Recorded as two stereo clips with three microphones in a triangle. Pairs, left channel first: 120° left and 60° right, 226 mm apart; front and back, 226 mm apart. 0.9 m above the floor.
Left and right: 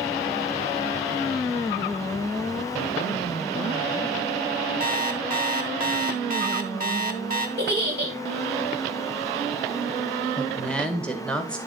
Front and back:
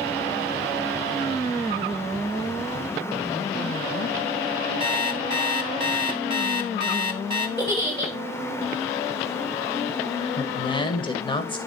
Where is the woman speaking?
40° left, 0.9 m.